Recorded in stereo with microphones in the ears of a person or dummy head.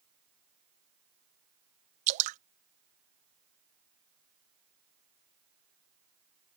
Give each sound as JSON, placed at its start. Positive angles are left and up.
{"t": 2.1, "sound": "dripping", "side_deg": -40}